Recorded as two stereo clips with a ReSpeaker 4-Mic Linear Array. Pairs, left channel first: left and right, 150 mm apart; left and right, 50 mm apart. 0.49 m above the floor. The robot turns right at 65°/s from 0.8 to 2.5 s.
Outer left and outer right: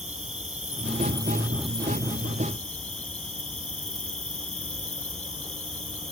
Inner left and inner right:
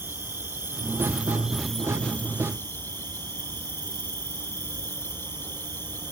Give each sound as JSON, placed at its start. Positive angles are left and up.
{"t": 0.0, "sound": "an insect", "azimuth_deg": -55}